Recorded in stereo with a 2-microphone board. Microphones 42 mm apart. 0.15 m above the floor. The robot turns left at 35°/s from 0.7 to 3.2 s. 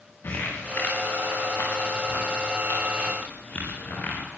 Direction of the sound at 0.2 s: 60° left (ahead or behind).